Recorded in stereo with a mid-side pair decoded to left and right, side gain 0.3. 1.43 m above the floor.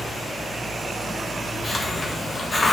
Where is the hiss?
45° left, 1.5 m.